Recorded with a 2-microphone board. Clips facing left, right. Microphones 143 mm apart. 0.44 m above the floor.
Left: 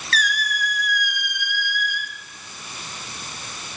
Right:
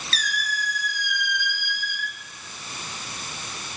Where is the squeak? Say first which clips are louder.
Left 6 dB; 65° left (ahead or behind), 0.5 m.